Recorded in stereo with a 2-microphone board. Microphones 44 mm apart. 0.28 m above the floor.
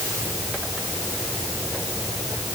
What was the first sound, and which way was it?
Only background noise.